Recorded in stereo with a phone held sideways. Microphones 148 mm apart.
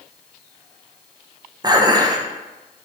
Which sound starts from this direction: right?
Dishes clattering, at 1.6 s.